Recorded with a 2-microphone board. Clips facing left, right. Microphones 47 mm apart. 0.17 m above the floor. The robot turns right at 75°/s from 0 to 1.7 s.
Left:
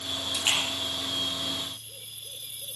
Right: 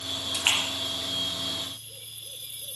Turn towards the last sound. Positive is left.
turn(degrees=20)  # may be behind; listen again after turning